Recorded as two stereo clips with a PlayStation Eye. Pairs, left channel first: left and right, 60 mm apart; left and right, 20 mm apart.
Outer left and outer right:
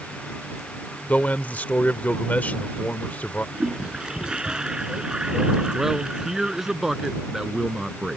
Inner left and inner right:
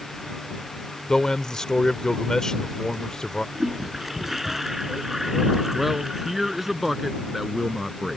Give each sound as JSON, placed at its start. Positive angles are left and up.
{"t": 1.1, "sound": "a man speaking", "side_deg": 25}
{"t": 3.5, "sound": "a toilet flushing", "side_deg": -15}
{"t": 5.7, "sound": "a man speaking", "side_deg": -5}